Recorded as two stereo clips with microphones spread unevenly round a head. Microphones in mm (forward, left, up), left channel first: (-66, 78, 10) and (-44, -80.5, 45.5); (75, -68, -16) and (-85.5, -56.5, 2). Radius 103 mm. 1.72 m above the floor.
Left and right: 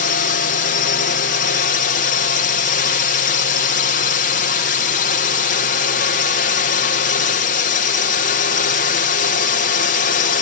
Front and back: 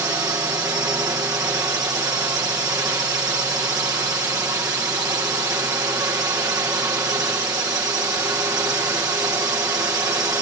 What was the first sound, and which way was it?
A drone, 100° left.